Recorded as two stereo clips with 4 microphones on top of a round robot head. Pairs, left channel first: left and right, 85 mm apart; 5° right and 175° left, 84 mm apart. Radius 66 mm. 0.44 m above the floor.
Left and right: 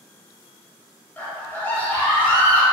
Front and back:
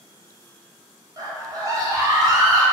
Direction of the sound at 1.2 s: 155° left.